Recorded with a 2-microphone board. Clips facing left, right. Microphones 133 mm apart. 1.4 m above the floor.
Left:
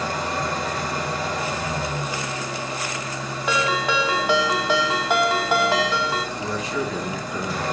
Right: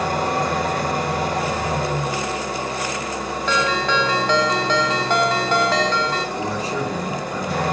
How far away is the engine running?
About 3.5 m.